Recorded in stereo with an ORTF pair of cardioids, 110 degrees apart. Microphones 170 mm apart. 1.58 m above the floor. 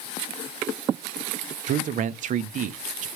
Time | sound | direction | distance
1.7 | a man speaking | 50° right | 0.6 m